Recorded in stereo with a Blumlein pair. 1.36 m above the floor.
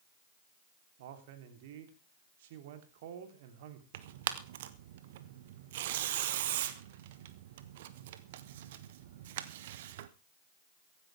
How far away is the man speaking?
About 3 m.